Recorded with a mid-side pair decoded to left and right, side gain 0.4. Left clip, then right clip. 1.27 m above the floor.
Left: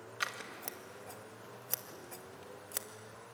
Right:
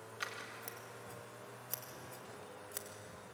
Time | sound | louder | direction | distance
0.2 | scissors | left 5 dB | 50° left | 2.5 m